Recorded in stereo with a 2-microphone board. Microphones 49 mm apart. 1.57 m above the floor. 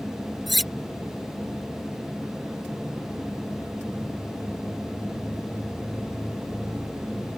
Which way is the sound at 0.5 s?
Centre (ahead or behind).